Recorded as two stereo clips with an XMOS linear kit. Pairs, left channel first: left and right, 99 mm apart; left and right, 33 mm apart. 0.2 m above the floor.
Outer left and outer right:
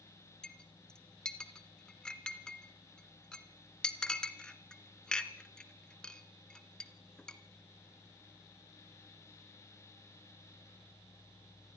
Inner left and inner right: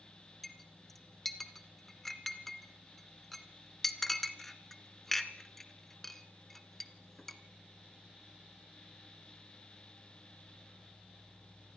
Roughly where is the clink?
Centre.